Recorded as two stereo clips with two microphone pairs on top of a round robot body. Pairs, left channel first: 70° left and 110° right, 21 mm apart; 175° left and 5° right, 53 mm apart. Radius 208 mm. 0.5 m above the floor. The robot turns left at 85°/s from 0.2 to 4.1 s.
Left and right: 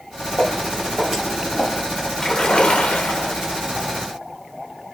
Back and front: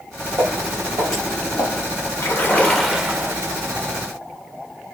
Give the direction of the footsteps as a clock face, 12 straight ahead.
11 o'clock.